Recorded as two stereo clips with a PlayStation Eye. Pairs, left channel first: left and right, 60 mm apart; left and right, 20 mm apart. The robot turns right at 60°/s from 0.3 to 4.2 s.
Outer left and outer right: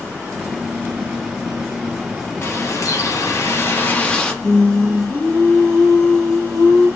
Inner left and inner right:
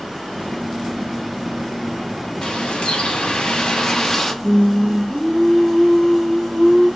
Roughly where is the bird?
Ahead left.